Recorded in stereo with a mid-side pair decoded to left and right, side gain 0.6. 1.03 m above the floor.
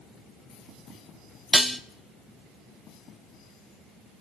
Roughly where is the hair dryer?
No hair dryer in this recording.